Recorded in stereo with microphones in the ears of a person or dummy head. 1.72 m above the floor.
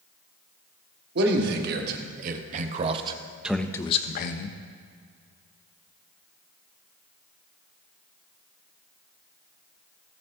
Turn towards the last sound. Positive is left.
turn(degrees=65)  # may be behind; listen again after turning